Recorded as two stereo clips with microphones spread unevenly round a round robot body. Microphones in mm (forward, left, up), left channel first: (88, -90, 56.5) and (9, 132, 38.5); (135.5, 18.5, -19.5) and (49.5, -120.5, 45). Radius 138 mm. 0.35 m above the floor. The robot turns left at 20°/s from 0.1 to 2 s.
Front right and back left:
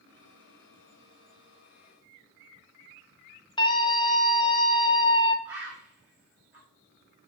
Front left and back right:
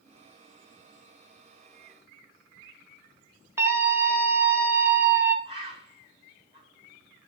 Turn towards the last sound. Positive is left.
turn(degrees=170)